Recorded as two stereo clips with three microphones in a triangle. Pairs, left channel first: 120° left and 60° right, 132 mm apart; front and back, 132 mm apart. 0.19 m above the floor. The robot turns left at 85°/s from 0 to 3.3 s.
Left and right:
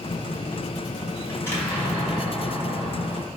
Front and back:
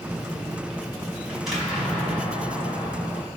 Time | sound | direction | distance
1.3 | an explosion | 115° left | 1.3 m